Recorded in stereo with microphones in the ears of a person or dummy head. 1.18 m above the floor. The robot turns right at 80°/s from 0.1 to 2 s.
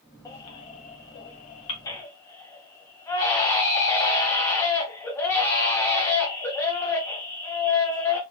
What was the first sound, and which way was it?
A baby crying, 25° left.